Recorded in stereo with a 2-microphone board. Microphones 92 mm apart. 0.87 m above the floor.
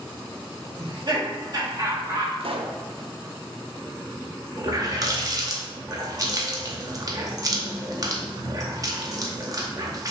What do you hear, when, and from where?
0.8 s laughter: 60° right (ahead or behind), 1.6 m; by 2.3 s 30° right (ahead or behind), 1.8 m
2.4 s a pop: 75° right (ahead or behind), 0.5 m
4.6 s a running tap: 40° right (ahead or behind), 0.8 m